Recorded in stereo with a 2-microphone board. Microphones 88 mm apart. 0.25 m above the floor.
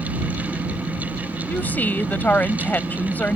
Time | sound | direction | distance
1.5 | a woman speaking | 20° left (ahead or behind) | ?